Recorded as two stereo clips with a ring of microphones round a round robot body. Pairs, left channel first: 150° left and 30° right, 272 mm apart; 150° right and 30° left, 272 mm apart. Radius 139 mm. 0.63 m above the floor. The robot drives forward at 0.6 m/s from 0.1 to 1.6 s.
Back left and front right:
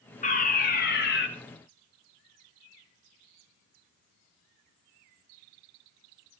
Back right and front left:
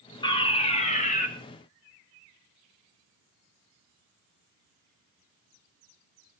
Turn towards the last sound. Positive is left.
turn(degrees=170)